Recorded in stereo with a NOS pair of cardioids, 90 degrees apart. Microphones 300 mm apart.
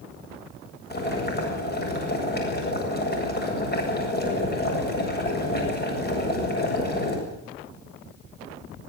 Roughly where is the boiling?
Ahead left.